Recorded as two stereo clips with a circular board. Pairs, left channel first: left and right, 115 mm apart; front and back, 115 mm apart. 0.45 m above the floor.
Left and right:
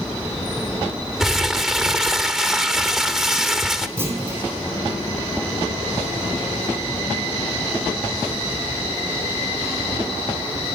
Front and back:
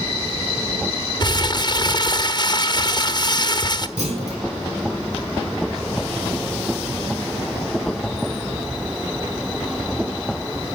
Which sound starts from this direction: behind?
A clunk, at 4.0 s.